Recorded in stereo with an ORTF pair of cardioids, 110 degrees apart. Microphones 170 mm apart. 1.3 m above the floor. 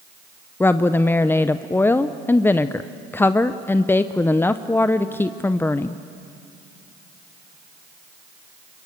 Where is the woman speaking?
15° left, 0.6 m.